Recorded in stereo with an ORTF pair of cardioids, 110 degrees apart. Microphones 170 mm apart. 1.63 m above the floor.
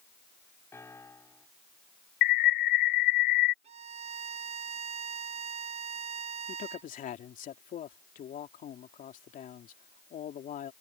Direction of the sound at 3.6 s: 40° right.